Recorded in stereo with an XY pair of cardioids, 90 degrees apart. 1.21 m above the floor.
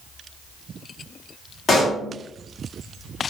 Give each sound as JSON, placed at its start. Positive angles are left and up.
{"t": 1.7, "sound": "a pop", "azimuth_deg": 55, "distance_m": 1.7}